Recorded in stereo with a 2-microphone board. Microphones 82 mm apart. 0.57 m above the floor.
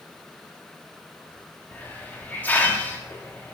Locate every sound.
1.7 s a hiss: 25° left (ahead or behind), 0.7 m